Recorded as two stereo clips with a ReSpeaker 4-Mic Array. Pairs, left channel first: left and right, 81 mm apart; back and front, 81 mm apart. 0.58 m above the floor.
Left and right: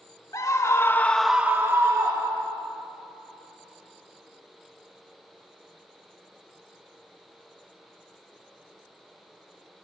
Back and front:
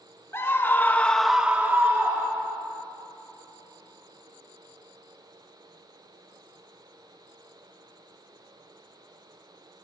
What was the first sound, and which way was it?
A scream, 125° left.